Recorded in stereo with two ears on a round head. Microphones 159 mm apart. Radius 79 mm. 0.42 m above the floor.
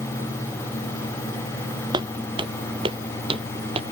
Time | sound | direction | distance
1.9 | footsteps | 25° right (ahead or behind) | ?